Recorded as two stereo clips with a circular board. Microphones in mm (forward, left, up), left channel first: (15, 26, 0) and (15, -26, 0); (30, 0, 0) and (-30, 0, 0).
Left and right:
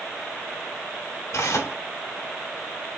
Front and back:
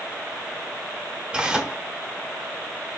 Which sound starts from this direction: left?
Tearing paper, at 1.3 s.